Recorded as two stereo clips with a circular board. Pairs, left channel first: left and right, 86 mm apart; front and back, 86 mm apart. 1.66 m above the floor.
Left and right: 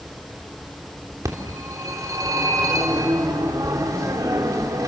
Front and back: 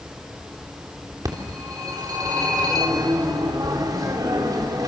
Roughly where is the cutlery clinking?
I don't hear cutlery clinking.